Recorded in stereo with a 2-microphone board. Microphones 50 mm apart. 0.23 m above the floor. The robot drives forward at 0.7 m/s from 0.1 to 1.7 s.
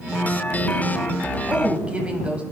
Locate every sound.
1.5 s a woman speaking: 20° right (ahead or behind), 1.0 m